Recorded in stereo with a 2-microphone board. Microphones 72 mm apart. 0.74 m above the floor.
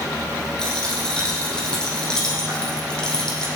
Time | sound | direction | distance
0.6 | a dropped coin | 10° left (ahead or behind) | 4.5 m